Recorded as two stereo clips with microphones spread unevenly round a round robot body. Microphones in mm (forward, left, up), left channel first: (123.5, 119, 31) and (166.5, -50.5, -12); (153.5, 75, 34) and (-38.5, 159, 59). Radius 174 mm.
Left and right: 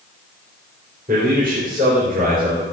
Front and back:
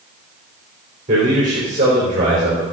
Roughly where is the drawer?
I don't hear a drawer.